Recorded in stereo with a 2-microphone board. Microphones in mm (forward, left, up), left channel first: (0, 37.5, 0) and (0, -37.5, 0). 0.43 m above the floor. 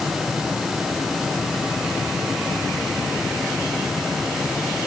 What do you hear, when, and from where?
Only background noise.